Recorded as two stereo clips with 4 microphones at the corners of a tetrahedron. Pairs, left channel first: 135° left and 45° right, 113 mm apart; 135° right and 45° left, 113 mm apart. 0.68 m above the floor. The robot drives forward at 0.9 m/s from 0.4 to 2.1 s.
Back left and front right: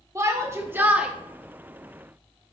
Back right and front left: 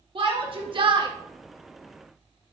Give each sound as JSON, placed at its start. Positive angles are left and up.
{"t": 0.1, "sound": "a shout", "azimuth_deg": 15, "distance_m": 1.2}